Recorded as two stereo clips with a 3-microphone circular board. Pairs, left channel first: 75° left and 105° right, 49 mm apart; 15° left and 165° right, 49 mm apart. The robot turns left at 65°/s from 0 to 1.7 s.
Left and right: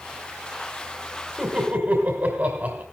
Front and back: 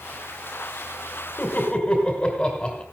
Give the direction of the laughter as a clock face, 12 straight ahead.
1 o'clock.